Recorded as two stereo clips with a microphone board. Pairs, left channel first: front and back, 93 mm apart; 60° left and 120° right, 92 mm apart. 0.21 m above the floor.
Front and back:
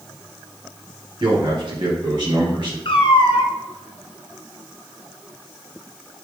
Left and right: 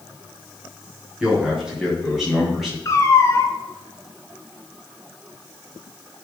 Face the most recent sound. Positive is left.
turn(degrees=5)